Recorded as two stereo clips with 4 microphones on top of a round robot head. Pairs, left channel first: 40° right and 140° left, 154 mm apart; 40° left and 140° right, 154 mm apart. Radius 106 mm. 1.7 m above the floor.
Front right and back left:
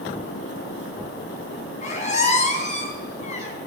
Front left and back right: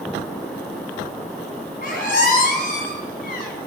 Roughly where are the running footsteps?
No running footsteps in this recording.